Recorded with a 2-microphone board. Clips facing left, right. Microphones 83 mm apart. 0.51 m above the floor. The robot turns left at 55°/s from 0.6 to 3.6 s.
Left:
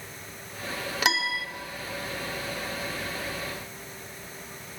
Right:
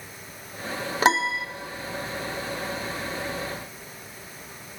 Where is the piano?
35° right (ahead or behind), 0.5 m; by 1.4 s 25° right (ahead or behind), 0.5 m.